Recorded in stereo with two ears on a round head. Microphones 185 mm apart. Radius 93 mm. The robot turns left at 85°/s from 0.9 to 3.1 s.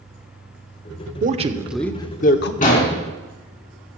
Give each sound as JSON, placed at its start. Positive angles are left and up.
{"t": 1.2, "sound": "a man speaking", "azimuth_deg": -135, "distance_m": 0.9}
{"t": 2.6, "sound": "an explosion", "azimuth_deg": 140, "distance_m": 3.0}